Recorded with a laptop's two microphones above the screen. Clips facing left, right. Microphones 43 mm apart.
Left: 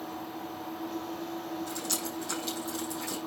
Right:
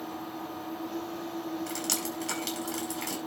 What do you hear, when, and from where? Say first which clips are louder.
1.7 s dripping: right 1 dB; 80° right, 5 m